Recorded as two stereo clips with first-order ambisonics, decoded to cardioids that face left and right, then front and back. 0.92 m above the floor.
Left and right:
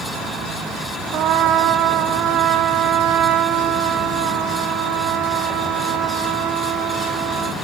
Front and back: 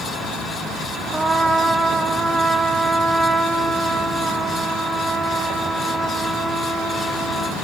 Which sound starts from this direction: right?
A trumpet, at 1.1 s.